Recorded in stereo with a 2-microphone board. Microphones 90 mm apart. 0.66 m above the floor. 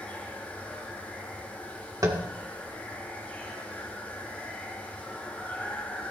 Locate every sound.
0.0 s running water: 15° left (ahead or behind), 3 m
2.0 s tapping: 40° right (ahead or behind), 1.6 m